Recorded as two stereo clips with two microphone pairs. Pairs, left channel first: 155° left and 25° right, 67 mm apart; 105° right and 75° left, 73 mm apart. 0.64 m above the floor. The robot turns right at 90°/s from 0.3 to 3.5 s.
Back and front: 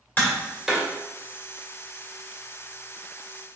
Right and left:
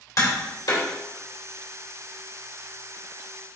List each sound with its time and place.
0.2 s tapping: 140° right, 1.8 m; by 0.9 s 90° right, 1.8 m